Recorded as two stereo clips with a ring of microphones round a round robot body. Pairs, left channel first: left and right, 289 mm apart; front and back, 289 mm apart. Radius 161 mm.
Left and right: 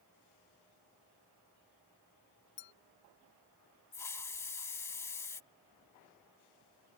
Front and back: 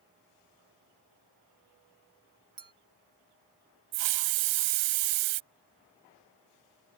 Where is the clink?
130° left.